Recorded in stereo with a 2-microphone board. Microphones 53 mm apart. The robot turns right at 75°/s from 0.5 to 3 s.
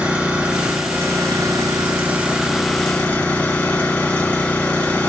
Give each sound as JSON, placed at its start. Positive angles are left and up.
{"t": 0.0, "sound": "an engine running", "azimuth_deg": -160, "distance_m": 2.0}